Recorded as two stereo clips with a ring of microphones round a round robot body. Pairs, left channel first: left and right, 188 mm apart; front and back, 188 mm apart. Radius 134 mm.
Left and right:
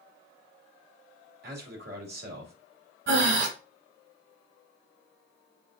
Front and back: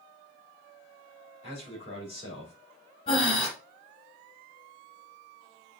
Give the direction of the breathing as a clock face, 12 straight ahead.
2 o'clock.